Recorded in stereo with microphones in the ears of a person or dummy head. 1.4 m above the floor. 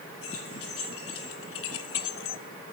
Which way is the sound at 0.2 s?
75° left (ahead or behind).